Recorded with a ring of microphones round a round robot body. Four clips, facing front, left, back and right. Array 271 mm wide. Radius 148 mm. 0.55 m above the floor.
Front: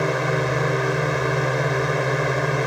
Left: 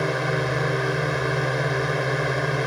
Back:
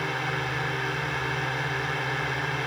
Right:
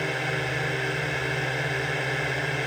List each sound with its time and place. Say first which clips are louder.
0.0 s a drone: left 5 dB, front 8 dB; 25° left